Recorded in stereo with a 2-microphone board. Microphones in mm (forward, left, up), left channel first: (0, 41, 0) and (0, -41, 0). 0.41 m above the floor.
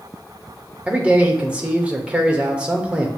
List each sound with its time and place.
0.9 s a man speaking: 15° right (ahead or behind), 0.8 m